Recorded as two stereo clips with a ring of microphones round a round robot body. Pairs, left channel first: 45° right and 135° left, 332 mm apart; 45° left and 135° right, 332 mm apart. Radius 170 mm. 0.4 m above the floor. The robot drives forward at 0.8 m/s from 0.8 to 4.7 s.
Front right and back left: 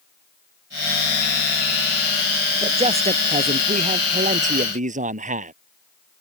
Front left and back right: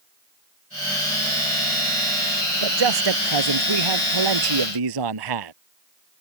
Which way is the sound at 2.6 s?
150° right.